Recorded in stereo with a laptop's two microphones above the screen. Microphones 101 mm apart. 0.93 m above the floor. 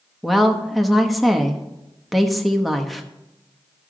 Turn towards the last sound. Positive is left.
turn(degrees=0)  # may be behind; listen again after turning